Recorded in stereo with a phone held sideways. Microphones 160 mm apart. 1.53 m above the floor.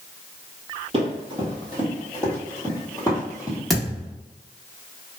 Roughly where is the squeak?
No squeak in this recording.